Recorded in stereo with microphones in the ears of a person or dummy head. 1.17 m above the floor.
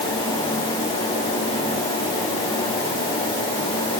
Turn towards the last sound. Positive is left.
No sound to turn to.